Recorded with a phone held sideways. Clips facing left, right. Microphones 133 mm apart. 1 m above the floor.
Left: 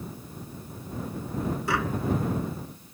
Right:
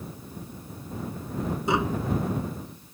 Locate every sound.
1.7 s tapping: 20° right (ahead or behind)